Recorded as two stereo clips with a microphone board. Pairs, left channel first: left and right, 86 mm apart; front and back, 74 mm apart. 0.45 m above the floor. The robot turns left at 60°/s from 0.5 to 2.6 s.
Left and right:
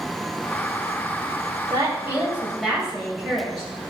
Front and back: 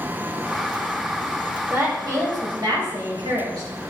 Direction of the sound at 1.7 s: 125° right.